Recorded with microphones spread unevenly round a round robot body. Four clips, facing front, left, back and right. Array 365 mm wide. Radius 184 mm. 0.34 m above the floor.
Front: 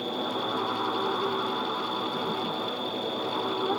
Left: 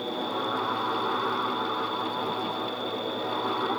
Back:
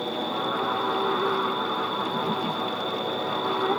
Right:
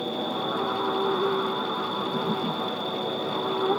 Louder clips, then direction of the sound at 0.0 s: Right 1 dB, back 2 dB; 115° right.